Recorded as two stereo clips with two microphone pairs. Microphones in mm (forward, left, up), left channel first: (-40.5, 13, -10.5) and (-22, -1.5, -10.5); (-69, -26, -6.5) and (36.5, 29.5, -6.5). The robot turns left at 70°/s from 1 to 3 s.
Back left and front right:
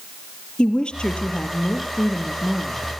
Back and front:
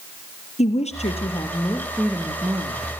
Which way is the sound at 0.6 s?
170° right.